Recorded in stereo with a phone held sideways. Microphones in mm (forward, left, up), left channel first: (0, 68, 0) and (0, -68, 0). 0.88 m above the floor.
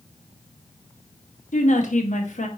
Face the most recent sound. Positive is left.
turn(degrees=65)  # may be behind; listen again after turning